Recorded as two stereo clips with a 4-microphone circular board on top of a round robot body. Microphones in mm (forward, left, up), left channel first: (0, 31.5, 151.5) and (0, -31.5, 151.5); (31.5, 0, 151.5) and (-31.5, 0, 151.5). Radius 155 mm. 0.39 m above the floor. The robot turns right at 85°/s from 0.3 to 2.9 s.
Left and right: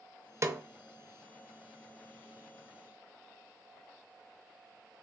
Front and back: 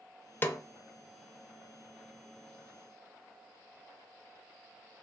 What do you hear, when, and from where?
0.4 s a snare drum: 55° right, 0.5 m; by 0.6 s 35° right, 0.5 m